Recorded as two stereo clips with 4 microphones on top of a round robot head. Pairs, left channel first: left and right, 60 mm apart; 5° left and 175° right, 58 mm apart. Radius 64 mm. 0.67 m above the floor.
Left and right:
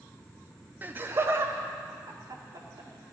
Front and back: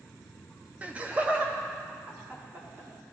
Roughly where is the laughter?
Behind right.